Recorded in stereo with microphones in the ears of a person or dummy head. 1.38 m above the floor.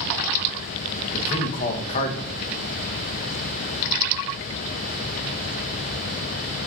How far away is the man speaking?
About 1.5 m.